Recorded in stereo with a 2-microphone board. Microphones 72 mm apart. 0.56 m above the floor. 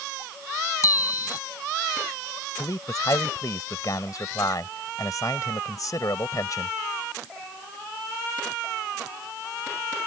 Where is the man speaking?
55° left (ahead or behind).